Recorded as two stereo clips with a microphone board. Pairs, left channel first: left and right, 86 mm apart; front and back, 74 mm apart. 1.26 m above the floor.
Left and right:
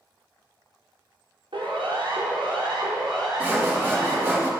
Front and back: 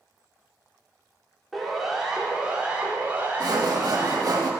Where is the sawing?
155° right, 3 m.